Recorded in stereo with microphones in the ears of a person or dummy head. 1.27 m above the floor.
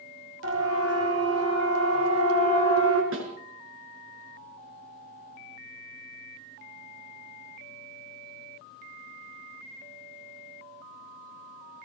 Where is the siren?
85° right, 6 m; by 3.0 s 80° right, 7 m.